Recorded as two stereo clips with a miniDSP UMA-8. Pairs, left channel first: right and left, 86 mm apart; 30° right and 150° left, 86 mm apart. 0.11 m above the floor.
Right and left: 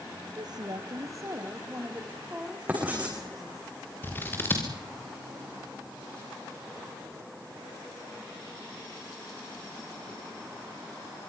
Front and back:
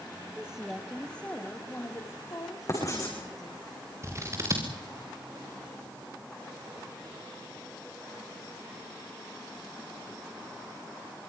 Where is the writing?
20° left, 8 m.